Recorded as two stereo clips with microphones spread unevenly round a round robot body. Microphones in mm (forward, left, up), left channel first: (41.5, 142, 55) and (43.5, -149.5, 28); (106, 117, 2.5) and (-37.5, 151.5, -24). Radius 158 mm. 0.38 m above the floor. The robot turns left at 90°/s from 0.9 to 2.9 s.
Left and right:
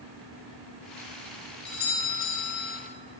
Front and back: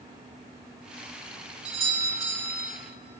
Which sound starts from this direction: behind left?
A doorbell, at 1.6 s.